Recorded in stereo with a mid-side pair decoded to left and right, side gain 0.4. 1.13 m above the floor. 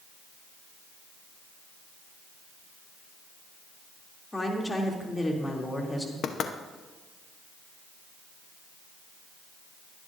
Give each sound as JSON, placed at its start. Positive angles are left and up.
{"t": 4.3, "sound": "a woman speaking", "azimuth_deg": 15, "distance_m": 3.0}
{"t": 6.2, "sound": "knocking", "azimuth_deg": 70, "distance_m": 0.9}